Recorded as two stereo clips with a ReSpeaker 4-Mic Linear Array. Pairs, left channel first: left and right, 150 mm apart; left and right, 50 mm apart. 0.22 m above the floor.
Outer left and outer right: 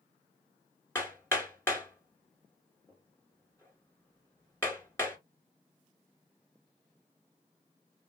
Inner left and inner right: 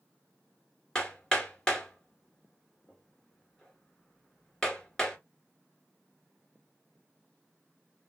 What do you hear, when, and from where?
0.9 s hammering: 15° left (ahead or behind), 1.7 m